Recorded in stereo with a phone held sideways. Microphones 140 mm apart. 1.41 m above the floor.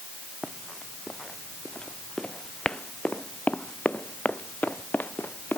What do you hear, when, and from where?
0.4 s running footsteps: centre (ahead or behind); by 5.6 s 15° left (ahead or behind)